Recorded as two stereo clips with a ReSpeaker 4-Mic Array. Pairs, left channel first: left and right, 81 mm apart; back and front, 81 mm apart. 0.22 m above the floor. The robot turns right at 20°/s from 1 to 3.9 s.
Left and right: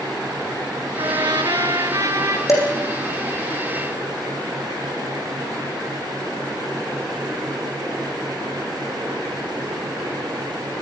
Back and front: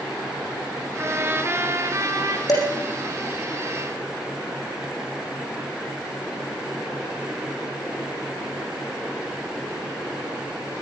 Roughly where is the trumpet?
Right.